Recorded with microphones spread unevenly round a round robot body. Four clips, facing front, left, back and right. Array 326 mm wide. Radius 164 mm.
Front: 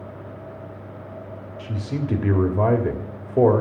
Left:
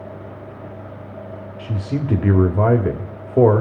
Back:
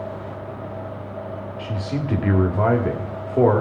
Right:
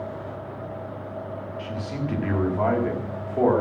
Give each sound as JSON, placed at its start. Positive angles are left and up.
{"t": 1.6, "sound": "a man speaking", "azimuth_deg": 75, "distance_m": 1.5}